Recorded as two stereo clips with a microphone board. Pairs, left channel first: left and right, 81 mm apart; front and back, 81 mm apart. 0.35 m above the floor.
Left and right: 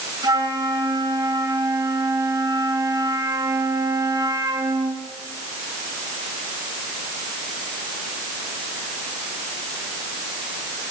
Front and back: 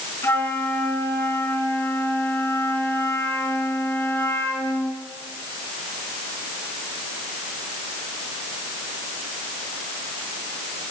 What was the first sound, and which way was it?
A flute, 55° right.